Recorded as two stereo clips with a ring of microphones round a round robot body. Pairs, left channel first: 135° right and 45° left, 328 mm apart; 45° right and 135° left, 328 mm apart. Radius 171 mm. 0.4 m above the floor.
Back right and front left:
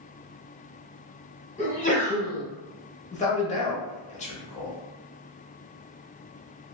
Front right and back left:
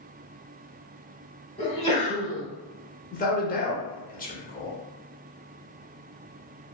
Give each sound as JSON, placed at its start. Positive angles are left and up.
{"t": 1.6, "sound": "a sneeze", "azimuth_deg": -95, "distance_m": 1.1}
{"t": 3.1, "sound": "a man speaking", "azimuth_deg": -85, "distance_m": 0.8}